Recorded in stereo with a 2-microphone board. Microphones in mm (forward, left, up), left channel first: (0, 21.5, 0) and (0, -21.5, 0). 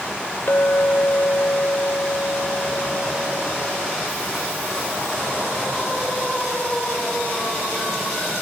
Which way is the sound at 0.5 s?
65° left (ahead or behind).